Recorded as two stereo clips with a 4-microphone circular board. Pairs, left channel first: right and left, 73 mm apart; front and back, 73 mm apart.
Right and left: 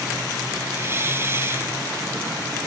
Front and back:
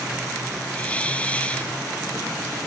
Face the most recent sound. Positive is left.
turn(degrees=60)